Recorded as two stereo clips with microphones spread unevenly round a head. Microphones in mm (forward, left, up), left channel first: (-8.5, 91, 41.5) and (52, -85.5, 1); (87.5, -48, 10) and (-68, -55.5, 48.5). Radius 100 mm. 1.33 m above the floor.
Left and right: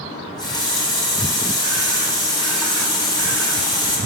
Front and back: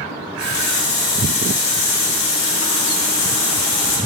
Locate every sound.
0.1 s a running tap: 45° left, 1.5 m